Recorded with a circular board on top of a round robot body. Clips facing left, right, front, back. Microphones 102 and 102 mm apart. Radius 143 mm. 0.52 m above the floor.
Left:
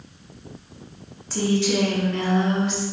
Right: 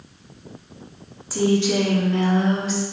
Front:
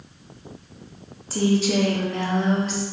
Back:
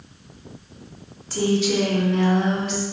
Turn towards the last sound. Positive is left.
turn(degrees=-45)